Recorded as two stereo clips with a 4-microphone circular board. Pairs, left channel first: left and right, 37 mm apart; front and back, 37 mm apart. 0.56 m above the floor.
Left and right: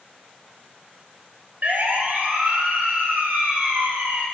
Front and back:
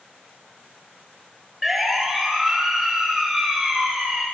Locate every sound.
1.6 s a siren: 100° right, 2.5 m